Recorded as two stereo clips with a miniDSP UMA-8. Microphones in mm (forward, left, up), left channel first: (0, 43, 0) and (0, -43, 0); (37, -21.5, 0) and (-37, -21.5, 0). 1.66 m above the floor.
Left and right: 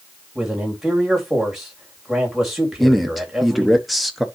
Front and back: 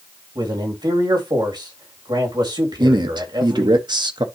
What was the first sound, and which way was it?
A man speaking, 175° right.